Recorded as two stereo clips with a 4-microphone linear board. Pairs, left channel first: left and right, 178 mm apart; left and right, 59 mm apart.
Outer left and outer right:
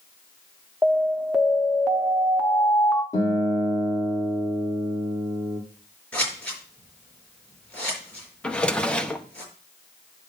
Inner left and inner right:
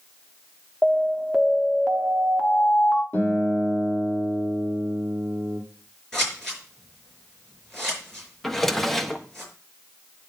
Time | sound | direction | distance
0.8 | an alarm | centre (ahead or behind) | 1.0 m
3.1 | a guitar | 20° left (ahead or behind) | 4 m
6.1 | scissors | 5° left (ahead or behind) | 5 m
8.4 | a drawer | 5° left (ahead or behind) | 0.8 m